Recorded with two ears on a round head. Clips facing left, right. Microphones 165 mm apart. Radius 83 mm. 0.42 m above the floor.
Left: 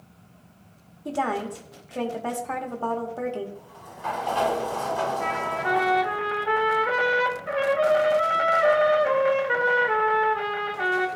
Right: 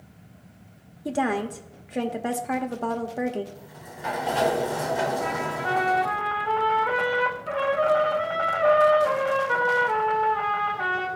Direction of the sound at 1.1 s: 20° right (ahead or behind).